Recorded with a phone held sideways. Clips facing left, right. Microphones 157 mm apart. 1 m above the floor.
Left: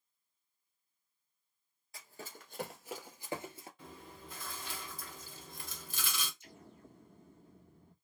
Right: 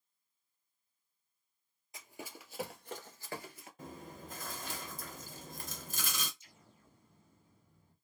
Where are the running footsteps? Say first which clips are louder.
Right 2 dB; 20° right (ahead or behind), 1.3 m; by 3.7 s 30° left (ahead or behind), 1.1 m.